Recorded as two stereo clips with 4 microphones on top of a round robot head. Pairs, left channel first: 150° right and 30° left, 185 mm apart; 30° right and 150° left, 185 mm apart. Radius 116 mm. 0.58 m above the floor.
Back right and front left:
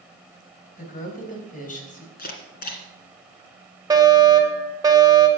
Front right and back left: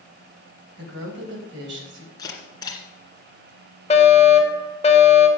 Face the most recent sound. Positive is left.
turn(degrees=-20)